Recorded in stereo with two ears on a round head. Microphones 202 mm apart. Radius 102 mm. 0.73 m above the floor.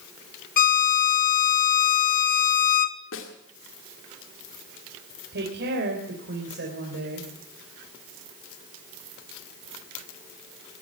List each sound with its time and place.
0.6 s a violin: 35° left (ahead or behind), 1.0 m
3.1 s a snare drum: 60° left (ahead or behind), 2 m
5.3 s a woman speaking: 50° right (ahead or behind), 3.5 m